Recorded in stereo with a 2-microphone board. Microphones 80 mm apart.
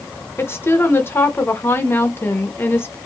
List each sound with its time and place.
0.4 s a woman speaking: 30° left (ahead or behind), 0.7 m